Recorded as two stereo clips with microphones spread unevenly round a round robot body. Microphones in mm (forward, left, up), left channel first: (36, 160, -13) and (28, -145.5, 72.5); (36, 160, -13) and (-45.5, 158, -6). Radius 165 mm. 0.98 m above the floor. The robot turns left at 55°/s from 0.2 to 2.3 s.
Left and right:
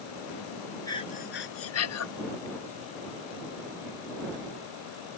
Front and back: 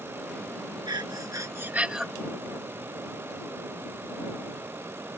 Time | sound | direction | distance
0.9 | breathing | 160° left | ?